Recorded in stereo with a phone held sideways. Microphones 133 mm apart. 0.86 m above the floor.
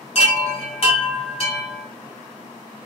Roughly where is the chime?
Left.